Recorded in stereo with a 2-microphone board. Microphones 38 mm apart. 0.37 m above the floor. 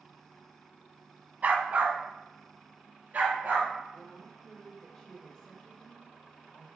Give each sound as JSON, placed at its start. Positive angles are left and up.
{"t": 1.4, "sound": "a dog barking", "side_deg": -50, "distance_m": 0.5}
{"t": 3.9, "sound": "a woman speaking", "side_deg": 20, "distance_m": 1.1}